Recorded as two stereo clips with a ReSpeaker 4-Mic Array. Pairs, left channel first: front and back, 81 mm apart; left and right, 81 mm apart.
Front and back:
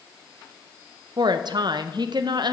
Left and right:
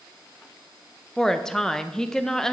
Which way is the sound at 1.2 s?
170° left.